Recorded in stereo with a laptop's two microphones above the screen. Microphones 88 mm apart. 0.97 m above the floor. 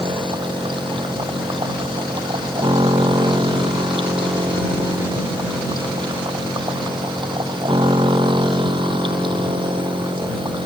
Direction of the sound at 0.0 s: 65° right (ahead or behind).